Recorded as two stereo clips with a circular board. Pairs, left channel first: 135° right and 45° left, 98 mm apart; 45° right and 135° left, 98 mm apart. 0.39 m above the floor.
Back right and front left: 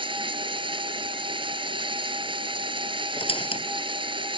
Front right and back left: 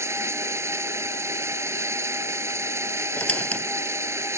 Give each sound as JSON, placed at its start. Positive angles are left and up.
{"t": 0.0, "sound": "running water", "azimuth_deg": 75}
{"t": 3.2, "sound": "a squeak", "azimuth_deg": -120}